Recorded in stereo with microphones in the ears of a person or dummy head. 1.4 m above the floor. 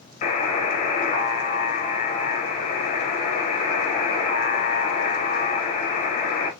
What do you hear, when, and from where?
0.2 s a buzzer: 30° left (ahead or behind), 0.7 m